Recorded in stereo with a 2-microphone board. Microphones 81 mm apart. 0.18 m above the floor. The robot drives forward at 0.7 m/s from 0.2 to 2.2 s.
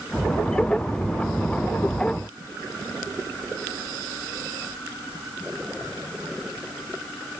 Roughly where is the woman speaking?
No woman speaking in this recording.